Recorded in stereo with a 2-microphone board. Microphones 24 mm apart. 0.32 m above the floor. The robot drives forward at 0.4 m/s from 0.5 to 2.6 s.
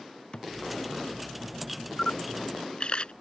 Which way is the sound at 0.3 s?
45° left (ahead or behind).